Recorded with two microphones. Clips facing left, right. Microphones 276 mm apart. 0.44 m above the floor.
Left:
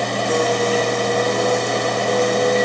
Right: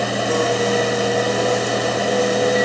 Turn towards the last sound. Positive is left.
No sound to turn to.